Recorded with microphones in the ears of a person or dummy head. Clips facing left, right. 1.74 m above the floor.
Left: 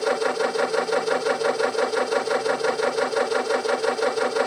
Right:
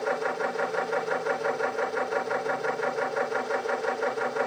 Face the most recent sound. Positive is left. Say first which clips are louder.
# left 6 dB
turn(degrees=55)  # may be behind; listen again after turning